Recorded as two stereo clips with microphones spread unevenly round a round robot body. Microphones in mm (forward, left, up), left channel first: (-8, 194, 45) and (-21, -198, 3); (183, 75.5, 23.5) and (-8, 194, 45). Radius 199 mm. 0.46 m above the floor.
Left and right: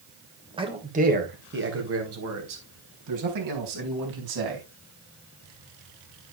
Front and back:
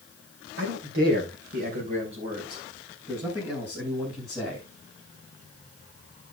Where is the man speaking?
165° right, 3 m; by 4.6 s 120° right, 4.5 m.